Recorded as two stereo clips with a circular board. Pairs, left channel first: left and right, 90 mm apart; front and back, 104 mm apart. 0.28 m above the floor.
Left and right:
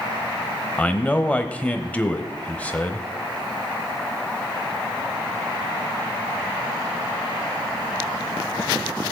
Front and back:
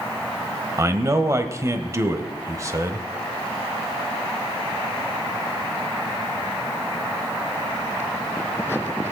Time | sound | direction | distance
0.8 | a man speaking | 155° left | 1.0 m